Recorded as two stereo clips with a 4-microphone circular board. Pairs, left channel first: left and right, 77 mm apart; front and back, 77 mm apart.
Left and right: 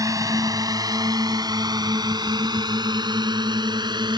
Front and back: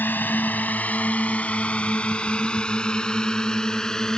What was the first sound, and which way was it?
A drone, 60° right.